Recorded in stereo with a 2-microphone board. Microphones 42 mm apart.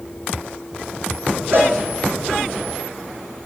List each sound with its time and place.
1.5 s a cowbell: 60° right (ahead or behind), 6.5 m